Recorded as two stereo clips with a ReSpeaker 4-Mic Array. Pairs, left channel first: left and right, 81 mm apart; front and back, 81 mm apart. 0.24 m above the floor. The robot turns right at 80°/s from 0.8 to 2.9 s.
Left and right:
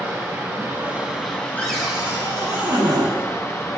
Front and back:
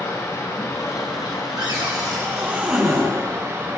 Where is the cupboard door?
160° left, 2.5 m; by 3.1 s 90° right, 2.5 m.